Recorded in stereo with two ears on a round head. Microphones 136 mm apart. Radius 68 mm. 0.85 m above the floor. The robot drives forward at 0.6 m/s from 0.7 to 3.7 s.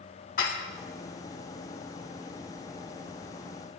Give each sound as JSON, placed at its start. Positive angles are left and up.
{"t": 0.4, "sound": "dishes clattering", "side_deg": 55, "distance_m": 2.0}